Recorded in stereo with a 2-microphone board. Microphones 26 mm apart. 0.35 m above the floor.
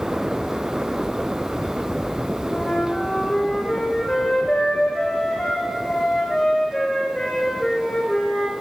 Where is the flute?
35° left (ahead or behind), 4.5 m.